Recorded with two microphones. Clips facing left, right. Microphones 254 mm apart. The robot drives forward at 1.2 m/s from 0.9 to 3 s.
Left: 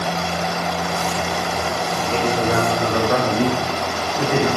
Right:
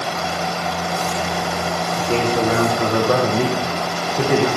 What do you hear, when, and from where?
2.0 s a man speaking: 55° right (ahead or behind), 7 m; by 4.5 s 65° right (ahead or behind), 6.5 m